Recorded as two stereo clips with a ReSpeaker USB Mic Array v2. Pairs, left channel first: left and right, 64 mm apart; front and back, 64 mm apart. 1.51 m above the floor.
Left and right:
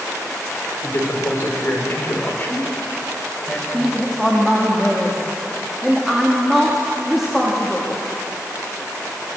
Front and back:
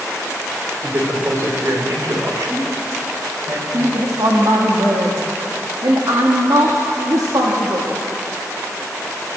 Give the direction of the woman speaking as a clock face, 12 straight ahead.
6 o'clock.